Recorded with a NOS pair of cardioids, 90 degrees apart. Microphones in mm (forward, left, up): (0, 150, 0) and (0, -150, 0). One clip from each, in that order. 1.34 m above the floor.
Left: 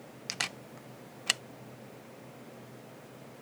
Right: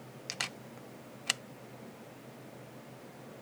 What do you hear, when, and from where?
0.3 s a camera shutter: 10° left